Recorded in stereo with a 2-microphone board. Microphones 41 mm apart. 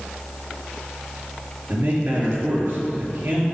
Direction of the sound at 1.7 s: 50° right (ahead or behind).